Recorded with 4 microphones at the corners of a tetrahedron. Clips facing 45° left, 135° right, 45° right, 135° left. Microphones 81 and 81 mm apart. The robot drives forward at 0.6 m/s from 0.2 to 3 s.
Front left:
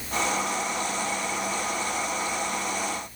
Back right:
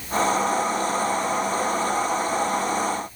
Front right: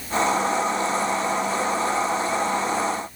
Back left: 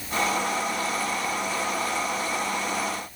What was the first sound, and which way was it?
Only background noise.